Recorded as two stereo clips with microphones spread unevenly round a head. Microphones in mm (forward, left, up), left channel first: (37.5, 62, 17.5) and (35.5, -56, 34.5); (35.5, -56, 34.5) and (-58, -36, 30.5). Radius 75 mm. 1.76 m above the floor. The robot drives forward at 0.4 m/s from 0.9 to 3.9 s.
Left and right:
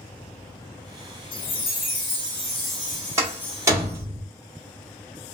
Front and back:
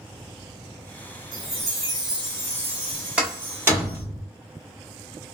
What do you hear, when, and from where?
1.3 s a chime: 75° left, 0.7 m; by 4.0 s 145° left, 1.1 m
3.2 s a door slam: 120° right, 1.1 m; by 4.2 s 140° right, 1.2 m